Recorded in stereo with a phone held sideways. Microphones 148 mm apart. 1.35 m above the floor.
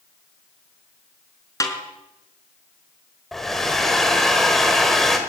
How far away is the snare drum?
About 4.5 m.